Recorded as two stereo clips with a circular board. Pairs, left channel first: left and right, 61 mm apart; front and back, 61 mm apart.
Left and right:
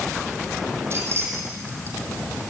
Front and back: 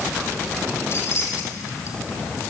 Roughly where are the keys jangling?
Ahead right.